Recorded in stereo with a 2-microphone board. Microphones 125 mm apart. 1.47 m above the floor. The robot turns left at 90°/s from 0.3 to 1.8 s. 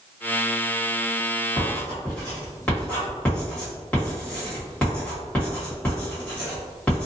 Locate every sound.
1.6 s writing: 35° left (ahead or behind), 1.4 m; by 7.1 s 15° left (ahead or behind), 1.4 m